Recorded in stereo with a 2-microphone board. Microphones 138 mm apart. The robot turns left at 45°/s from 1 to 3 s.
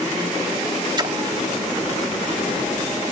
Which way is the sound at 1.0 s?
30° right (ahead or behind).